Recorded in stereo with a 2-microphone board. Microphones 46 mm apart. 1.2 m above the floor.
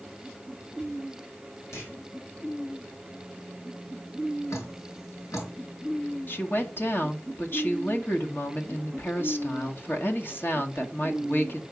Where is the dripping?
80° left, 4.5 m.